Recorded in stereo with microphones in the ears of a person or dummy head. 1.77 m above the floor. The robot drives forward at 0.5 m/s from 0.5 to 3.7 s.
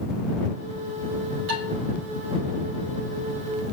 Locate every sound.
1.5 s dishes clattering: 70° right (ahead or behind), 4 m